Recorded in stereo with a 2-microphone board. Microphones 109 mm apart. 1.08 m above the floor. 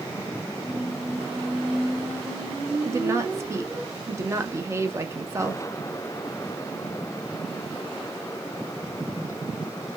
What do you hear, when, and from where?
0.6 s a squeak: 20° right (ahead or behind), 0.8 m
2.9 s a woman speaking: 25° right (ahead or behind), 0.6 m